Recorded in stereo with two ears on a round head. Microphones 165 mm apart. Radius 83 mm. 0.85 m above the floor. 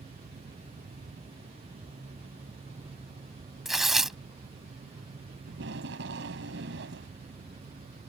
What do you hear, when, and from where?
3.6 s tearing paper: centre (ahead or behind)
5.5 s tape being pulled: 70° right (ahead or behind)